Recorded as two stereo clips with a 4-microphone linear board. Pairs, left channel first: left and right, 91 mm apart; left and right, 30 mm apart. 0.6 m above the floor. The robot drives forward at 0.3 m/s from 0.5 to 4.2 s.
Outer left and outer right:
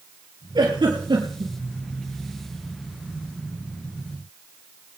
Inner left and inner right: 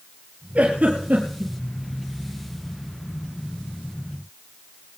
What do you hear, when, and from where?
0.6 s a giggle: 55° right (ahead or behind), 4.5 m